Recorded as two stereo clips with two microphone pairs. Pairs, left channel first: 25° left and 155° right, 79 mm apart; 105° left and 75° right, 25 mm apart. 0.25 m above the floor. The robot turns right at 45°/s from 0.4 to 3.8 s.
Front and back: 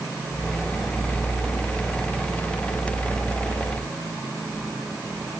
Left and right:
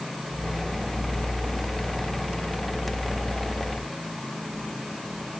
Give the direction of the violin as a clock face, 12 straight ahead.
No violin in this recording.